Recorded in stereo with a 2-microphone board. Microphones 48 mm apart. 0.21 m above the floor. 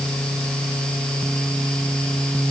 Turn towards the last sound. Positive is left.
No sound to turn to.